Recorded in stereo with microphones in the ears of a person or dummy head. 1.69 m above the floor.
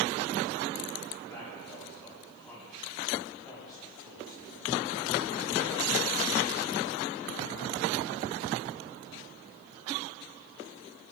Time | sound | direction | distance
1.3 | a man speaking | 15° left (ahead or behind) | 7.5 m